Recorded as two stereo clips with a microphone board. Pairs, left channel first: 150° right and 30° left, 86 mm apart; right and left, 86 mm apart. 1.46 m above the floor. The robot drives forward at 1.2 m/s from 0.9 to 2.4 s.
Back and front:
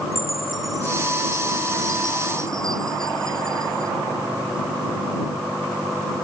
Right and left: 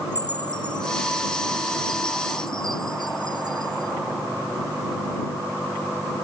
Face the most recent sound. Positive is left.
turn(degrees=-65)